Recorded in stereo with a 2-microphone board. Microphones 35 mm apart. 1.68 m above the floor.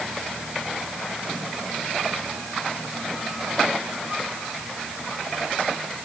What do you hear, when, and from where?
Only background noise.